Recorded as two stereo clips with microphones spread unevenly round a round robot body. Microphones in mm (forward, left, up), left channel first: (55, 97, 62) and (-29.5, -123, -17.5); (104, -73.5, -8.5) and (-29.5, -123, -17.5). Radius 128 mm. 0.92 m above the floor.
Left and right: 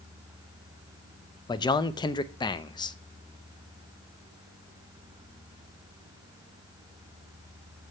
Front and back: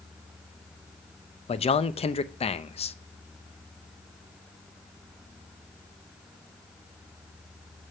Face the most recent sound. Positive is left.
turn(degrees=-15)